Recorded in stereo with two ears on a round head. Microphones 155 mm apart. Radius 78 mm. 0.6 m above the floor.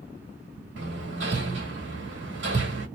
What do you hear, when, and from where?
0.8 s hammering: 75° right (ahead or behind), 1.5 m